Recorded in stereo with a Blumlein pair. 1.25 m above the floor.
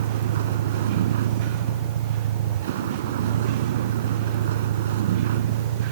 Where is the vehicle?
60° right.